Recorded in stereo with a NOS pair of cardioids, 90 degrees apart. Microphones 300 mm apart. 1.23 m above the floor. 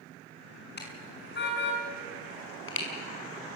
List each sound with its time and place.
0.8 s a car horn: 35° left, 5.5 m; by 2.9 s 45° left, 5 m